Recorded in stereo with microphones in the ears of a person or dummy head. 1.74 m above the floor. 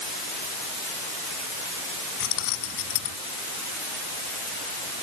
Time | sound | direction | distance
2.2 | keys jangling | 65° left (ahead or behind) | ?